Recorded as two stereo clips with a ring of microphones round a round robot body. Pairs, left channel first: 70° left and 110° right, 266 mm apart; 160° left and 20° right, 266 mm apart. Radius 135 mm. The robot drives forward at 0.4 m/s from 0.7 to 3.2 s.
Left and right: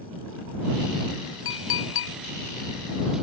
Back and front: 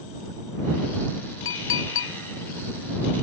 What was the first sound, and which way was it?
A clink, 110° left.